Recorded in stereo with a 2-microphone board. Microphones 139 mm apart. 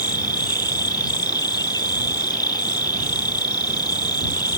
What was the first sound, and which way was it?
An insect, 30° left (ahead or behind).